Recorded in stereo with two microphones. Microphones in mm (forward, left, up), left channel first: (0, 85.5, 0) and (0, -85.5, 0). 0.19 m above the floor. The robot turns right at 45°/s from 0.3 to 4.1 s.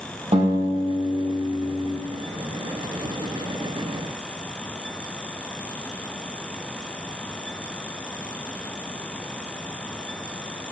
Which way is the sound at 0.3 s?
140° right.